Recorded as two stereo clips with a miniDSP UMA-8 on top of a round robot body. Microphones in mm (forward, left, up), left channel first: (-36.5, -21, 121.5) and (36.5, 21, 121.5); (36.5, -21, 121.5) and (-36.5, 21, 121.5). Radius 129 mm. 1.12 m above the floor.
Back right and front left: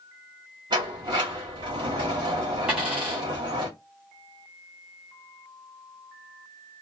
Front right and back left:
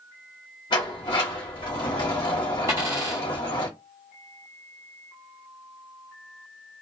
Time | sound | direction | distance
0.7 | a sliding door | 5° right | 1.2 m
2.7 | a dropped coin | 105° left | 0.6 m